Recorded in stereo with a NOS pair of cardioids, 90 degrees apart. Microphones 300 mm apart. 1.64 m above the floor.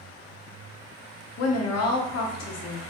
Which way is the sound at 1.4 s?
55° left.